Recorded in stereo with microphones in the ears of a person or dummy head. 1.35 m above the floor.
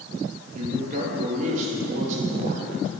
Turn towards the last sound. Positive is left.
turn(degrees=-40)  # may be behind; listen again after turning